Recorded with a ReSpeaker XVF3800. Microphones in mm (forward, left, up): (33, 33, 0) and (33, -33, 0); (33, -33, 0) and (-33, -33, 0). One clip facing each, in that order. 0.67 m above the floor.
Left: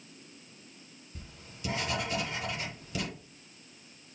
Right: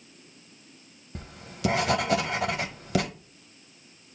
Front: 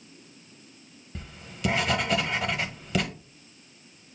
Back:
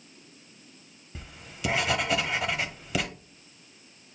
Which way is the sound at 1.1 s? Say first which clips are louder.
Right 9 dB, front 1 dB; 95° right.